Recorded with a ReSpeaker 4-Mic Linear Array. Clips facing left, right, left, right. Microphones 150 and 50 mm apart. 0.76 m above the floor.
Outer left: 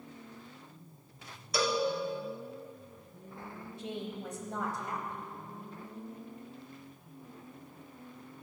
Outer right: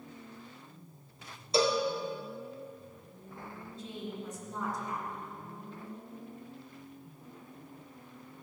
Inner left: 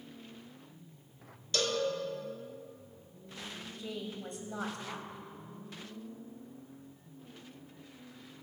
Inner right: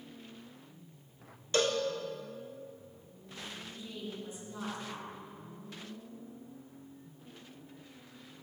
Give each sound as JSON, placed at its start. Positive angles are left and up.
{"t": 1.5, "sound": "a cowbell", "side_deg": -25, "distance_m": 1.7}
{"t": 3.6, "sound": "a woman speaking", "side_deg": 70, "distance_m": 3.5}